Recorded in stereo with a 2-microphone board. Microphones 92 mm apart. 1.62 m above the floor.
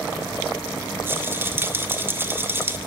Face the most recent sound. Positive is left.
turn(degrees=-25)  # may be behind; listen again after turning